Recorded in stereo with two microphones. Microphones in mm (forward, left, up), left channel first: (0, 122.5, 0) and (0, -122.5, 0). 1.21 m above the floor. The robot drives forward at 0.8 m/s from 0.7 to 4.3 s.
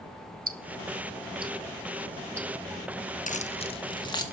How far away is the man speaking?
No man speaking in this recording.